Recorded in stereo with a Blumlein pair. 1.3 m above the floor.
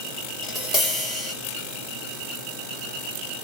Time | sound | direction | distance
0.4 | tapping | 5° left | 1.0 m